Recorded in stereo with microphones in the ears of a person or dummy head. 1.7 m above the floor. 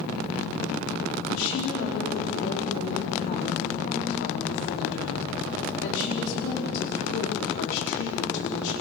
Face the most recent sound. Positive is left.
turn(degrees=70)  # may be behind; listen again after turning